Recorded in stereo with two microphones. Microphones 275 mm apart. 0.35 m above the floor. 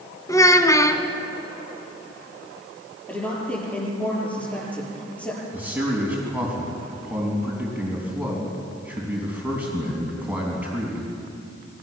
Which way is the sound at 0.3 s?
10° left (ahead or behind).